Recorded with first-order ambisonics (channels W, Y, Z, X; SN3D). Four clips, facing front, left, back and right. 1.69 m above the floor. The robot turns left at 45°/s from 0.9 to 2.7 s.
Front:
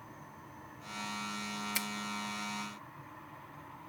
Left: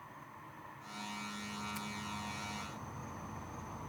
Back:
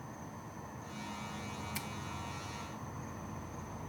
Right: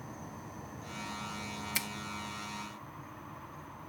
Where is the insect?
125° right; by 3.9 s 155° left.